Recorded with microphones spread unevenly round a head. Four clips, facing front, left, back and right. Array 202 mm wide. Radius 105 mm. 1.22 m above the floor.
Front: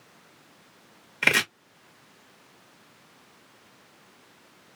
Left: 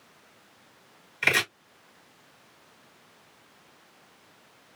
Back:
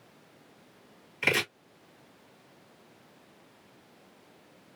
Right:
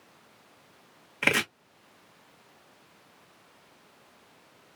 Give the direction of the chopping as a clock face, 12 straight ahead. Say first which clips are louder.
Even, front 4 dB; 1 o'clock.